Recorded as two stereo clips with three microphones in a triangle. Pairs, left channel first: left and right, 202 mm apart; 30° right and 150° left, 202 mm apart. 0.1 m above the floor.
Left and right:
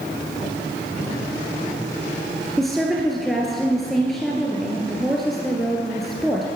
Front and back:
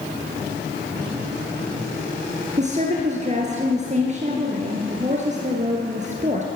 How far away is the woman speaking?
About 1.5 m.